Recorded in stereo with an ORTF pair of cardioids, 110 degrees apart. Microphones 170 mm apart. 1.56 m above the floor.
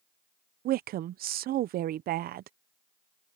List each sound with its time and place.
0.7 s a woman speaking: 65° right